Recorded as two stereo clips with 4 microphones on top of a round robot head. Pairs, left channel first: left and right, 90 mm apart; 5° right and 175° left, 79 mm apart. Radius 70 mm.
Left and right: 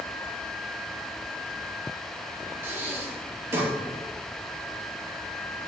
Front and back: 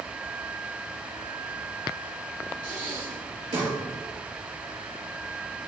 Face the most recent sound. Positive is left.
turn(degrees=-150)